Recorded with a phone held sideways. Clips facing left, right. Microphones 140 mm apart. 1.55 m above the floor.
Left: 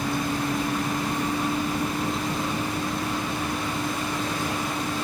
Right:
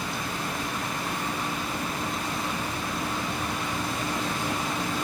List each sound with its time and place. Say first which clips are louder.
0.0 s a vehicle: left 6 dB; 50° left (ahead or behind); by 5.0 s 15° left (ahead or behind)